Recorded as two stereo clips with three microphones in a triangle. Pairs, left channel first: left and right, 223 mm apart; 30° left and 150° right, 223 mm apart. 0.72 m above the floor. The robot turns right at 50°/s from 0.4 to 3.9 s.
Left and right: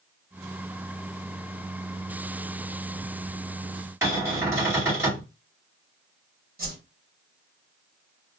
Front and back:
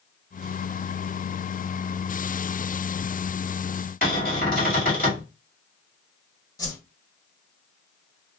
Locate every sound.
4.0 s a cupboard door: 15° right, 2.5 m
6.6 s a whoosh: 45° right, 1.7 m